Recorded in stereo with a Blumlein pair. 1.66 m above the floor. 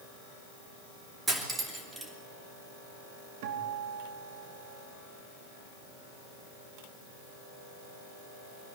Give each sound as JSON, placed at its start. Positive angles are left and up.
{"t": 1.3, "sound": "cutlery clinking", "azimuth_deg": -15, "distance_m": 2.5}
{"t": 3.4, "sound": "a guitar", "azimuth_deg": -45, "distance_m": 3.0}